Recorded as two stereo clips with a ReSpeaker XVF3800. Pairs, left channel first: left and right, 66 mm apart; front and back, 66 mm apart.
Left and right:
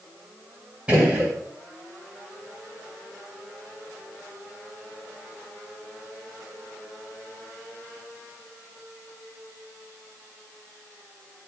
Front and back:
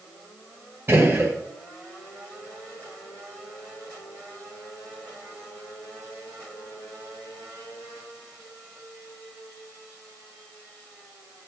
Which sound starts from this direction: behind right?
A gunshot, at 0.9 s.